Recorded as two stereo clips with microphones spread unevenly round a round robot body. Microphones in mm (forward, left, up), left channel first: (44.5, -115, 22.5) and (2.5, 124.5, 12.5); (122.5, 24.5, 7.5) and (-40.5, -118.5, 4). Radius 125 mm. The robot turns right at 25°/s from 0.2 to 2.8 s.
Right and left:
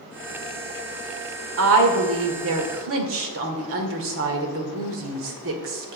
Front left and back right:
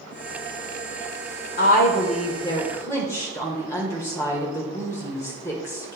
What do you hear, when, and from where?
1.6 s a woman speaking: 90° left, 1.6 m; by 6.0 s 120° left, 1.6 m